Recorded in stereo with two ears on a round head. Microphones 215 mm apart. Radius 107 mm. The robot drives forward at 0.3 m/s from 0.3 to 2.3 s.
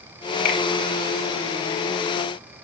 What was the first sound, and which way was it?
A finger snap, 75° left (ahead or behind).